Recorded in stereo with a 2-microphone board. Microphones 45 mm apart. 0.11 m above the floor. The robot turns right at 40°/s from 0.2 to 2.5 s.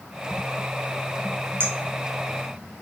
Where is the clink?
45° right (ahead or behind), 1.1 m.